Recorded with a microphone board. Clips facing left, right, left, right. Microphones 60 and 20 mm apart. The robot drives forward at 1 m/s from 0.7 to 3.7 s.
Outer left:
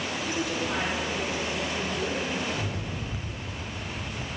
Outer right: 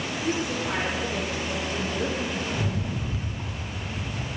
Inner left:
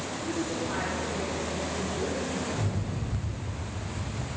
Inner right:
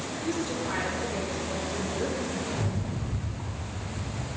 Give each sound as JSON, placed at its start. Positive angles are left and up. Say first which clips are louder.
{"t": 0.2, "sound": "a woman speaking", "louder": "outer right 3 dB, inner right 1 dB", "side_deg": -55, "distance_m": 3.5}
{"t": 2.5, "sound": "a rattle", "louder": "outer right 3 dB, inner right 1 dB", "side_deg": -55, "distance_m": 2.0}